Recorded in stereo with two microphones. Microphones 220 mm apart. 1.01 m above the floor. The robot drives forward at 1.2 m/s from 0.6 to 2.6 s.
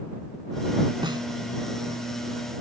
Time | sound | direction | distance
1.0 | a snare drum | 20° right (ahead or behind) | ?